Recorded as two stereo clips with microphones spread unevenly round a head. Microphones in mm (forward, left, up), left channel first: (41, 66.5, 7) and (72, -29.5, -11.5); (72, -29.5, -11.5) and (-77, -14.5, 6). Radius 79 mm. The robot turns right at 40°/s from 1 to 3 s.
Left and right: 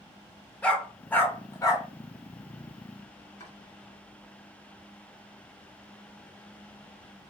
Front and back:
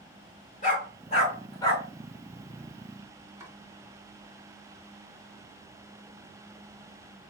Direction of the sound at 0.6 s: 40° left.